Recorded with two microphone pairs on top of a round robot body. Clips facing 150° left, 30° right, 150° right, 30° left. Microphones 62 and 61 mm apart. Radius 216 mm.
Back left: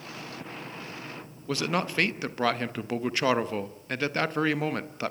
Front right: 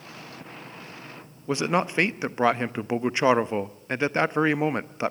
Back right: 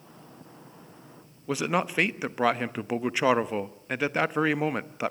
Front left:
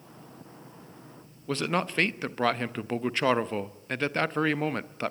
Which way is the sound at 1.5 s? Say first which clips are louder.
Front right 4 dB, back right 2 dB; 85° right.